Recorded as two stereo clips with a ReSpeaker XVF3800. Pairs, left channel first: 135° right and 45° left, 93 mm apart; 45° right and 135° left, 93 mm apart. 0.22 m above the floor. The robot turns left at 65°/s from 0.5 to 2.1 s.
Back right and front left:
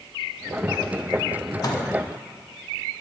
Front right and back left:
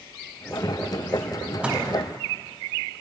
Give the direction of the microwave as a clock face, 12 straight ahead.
5 o'clock.